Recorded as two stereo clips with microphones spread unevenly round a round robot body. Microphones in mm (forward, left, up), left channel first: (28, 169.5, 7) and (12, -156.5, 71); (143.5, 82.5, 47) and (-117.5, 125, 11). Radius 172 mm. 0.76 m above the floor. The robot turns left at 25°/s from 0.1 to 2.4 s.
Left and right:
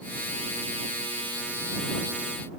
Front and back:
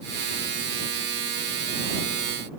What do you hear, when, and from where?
Only background noise.